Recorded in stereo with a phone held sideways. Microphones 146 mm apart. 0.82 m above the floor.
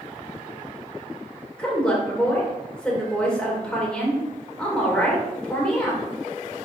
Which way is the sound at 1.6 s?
5° left (ahead or behind).